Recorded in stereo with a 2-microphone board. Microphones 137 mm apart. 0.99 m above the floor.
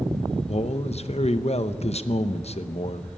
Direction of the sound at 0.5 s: 50° left (ahead or behind).